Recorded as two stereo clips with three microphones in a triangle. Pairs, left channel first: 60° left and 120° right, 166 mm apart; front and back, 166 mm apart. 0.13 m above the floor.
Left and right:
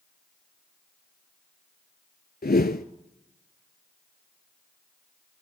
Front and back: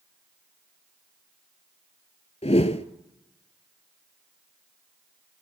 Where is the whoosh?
50° left, 0.6 m.